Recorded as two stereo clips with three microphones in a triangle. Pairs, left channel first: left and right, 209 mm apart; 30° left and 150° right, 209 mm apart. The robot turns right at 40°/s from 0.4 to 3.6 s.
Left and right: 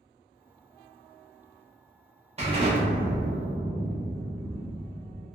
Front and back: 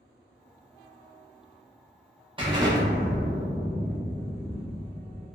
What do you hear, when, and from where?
2.4 s an explosion: 110° right, 0.7 m; by 5.3 s 60° right, 0.7 m